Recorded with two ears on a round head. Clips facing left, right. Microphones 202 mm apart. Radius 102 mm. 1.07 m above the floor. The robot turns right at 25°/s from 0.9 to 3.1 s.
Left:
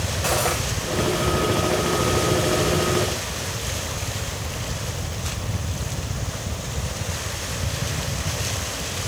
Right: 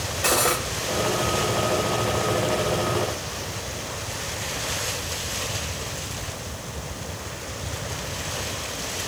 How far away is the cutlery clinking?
About 3 m.